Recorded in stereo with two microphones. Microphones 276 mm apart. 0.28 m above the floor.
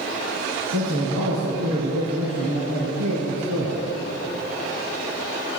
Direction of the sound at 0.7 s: 65° right (ahead or behind).